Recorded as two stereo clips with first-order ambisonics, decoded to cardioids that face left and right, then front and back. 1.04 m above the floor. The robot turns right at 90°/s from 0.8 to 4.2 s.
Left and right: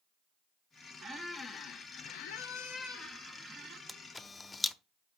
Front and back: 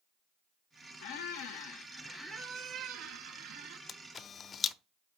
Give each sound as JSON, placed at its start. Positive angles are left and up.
{"t": 1.0, "sound": "a squeak", "azimuth_deg": -30, "distance_m": 1.2}
{"t": 3.9, "sound": "a camera shutter", "azimuth_deg": 0, "distance_m": 0.6}